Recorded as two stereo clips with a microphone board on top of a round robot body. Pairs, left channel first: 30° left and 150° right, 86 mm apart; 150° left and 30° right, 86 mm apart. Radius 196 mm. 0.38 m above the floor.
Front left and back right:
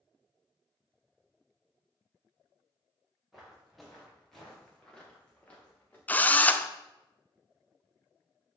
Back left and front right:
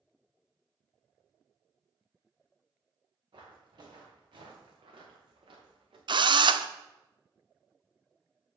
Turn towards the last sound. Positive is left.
turn(degrees=-40)